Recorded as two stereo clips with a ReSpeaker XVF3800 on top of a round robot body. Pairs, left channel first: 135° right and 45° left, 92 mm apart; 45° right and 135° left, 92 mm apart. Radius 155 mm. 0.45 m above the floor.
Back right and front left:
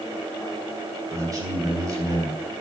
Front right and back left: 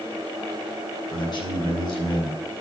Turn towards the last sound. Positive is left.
turn(degrees=-10)